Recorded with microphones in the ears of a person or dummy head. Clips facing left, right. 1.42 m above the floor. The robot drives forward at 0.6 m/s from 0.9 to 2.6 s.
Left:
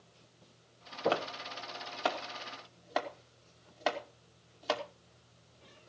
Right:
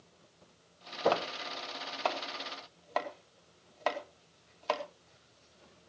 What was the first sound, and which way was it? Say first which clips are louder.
Chopping: right 1 dB; 20° left (ahead or behind).